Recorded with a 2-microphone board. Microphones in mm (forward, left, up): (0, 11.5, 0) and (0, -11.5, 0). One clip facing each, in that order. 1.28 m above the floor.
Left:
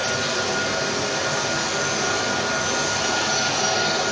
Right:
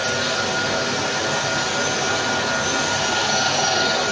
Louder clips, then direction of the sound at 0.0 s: Right 2 dB; 45° right (ahead or behind).